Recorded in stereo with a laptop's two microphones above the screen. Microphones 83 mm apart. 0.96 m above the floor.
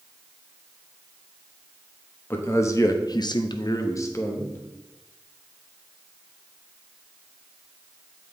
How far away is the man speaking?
About 1.1 m.